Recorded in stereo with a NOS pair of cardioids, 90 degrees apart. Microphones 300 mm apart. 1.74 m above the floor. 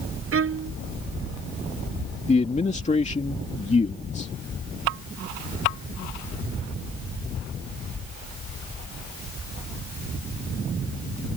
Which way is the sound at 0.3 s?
45° right.